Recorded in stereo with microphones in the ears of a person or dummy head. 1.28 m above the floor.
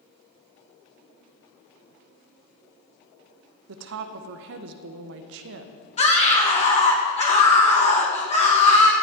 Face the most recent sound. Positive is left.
turn(degrees=35)  # may be behind; listen again after turning